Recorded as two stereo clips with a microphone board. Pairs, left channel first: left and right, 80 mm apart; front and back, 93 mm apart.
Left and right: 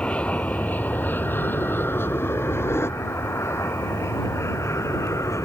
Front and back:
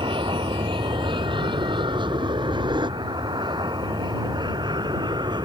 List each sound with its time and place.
0.0 s an aircraft: 165° left; by 5.5 s 140° left